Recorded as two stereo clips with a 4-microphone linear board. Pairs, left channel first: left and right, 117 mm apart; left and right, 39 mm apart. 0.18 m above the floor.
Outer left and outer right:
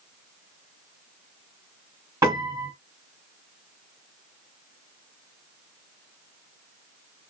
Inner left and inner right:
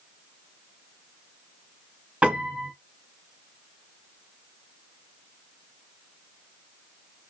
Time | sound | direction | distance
2.2 | a piano | 30° right (ahead or behind) | 2.5 m